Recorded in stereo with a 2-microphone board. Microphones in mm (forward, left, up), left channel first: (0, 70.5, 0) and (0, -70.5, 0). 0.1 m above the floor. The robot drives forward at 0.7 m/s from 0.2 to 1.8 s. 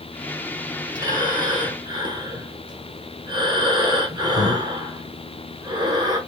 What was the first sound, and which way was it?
Breathing, 25° right (ahead or behind).